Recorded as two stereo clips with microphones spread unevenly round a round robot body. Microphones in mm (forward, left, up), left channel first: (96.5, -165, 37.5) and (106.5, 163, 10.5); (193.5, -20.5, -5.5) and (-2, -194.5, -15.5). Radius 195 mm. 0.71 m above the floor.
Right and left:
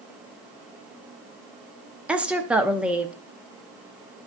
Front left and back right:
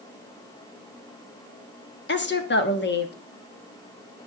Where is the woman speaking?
5° left, 1.4 m.